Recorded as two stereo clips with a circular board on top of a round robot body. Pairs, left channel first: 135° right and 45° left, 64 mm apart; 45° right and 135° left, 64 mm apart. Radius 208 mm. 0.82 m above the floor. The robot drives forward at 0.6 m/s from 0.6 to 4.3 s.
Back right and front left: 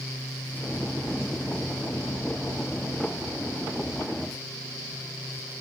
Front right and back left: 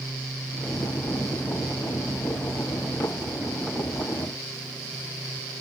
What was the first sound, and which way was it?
Only background noise.